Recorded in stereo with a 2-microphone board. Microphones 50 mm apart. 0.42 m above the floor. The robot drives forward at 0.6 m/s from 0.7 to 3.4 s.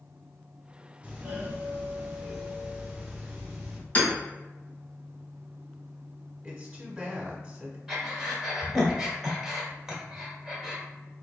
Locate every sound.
1.0 s a doorbell: 25° right (ahead or behind), 1.4 m; by 3.8 s 20° right (ahead or behind), 1.8 m
4.0 s hammering: 30° left (ahead or behind), 1.8 m
6.4 s a woman speaking: 20° right (ahead or behind), 1.0 m
7.9 s breathing: 10° right (ahead or behind), 1.2 m